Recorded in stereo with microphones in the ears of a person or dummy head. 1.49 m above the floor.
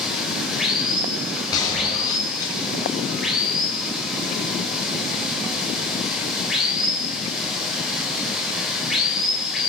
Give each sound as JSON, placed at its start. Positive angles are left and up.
{"t": 0.0, "sound": "running water", "side_deg": 0, "distance_m": 5.5}
{"t": 1.5, "sound": "a gunshot", "side_deg": 20, "distance_m": 7.5}